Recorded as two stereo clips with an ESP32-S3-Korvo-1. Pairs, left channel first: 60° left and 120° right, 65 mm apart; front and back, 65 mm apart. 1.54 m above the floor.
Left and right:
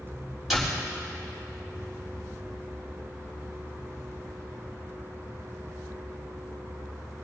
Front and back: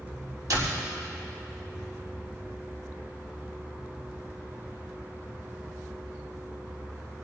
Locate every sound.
0.5 s a door slam: 150° left, 5.5 m